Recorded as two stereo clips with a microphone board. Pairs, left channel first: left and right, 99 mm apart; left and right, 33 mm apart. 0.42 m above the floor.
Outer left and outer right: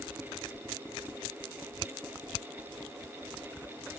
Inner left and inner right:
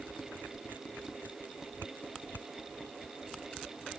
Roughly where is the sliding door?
I don't hear a sliding door.